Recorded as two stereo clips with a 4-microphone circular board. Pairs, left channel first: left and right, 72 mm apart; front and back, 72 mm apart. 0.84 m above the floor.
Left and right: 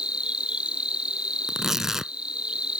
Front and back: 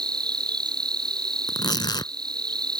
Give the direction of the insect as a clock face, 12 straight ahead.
6 o'clock.